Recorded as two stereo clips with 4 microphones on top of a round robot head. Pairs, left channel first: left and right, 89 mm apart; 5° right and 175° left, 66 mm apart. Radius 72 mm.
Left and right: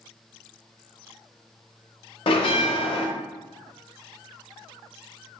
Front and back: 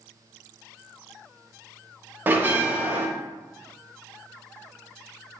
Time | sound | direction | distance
2.3 | a bell | 110° left | 0.6 m